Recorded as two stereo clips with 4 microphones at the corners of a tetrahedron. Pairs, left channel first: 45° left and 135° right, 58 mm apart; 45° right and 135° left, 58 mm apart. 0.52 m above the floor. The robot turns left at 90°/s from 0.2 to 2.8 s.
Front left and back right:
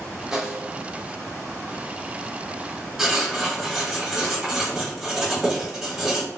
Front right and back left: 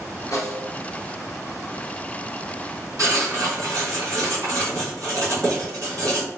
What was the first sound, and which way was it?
A snare drum, 50° right.